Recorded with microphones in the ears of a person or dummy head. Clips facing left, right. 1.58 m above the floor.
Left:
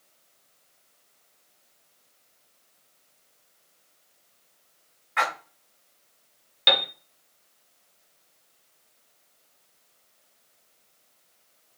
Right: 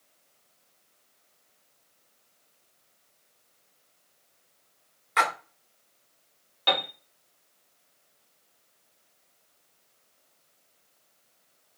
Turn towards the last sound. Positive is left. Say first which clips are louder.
# left 1 dB
turn(degrees=25)  # may be behind; listen again after turning